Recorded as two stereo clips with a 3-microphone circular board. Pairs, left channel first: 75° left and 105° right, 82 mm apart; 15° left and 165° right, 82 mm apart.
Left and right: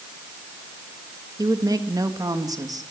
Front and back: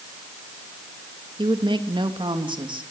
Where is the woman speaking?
145° right, 2.5 m.